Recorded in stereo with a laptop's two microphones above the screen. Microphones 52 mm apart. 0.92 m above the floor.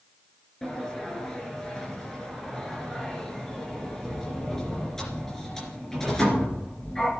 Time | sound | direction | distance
0.6 | a sliding door | 10° left (ahead or behind) | 3 m